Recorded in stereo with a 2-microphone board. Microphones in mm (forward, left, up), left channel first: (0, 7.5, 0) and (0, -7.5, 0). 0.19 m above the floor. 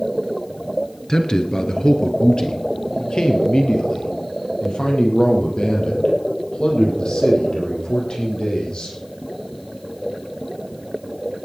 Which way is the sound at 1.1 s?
35° left (ahead or behind).